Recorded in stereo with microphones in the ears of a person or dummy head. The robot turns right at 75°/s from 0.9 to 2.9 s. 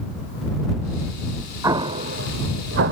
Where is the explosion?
10° right (ahead or behind); by 2.9 s 65° right (ahead or behind).